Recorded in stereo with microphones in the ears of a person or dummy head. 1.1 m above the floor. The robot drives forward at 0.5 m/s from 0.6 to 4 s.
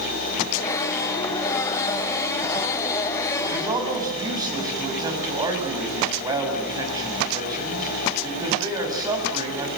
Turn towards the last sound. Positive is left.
turn(degrees=-25)  # may be behind; listen again after turning